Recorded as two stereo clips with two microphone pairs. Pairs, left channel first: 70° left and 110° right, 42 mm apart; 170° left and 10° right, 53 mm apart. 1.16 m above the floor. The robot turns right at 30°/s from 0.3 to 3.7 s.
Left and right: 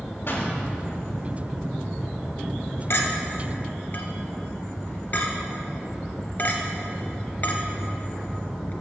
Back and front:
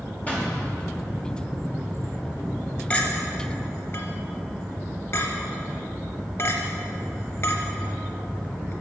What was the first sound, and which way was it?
A pop, 105° left.